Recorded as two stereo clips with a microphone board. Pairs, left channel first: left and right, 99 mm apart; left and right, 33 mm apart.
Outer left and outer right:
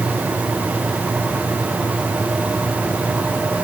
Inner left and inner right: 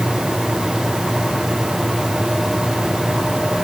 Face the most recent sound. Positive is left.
No sound to turn to.